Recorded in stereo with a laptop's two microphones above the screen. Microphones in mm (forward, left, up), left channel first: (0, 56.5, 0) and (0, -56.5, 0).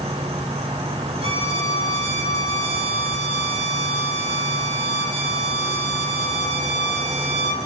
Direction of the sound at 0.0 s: 65° right (ahead or behind).